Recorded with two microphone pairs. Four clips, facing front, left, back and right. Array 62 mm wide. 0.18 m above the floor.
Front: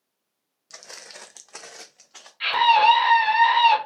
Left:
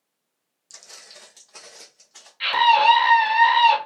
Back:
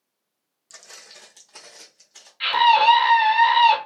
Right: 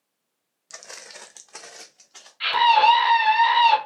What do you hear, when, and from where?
0.7 s footsteps: 75° right, 0.5 m; by 2.3 s 5° right, 0.9 m
2.4 s a scream: 120° left, 1.5 m